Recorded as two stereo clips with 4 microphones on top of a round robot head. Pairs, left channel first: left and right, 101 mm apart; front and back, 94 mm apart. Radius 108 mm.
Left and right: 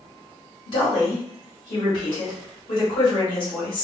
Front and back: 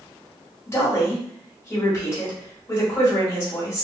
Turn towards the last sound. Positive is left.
turn(degrees=60)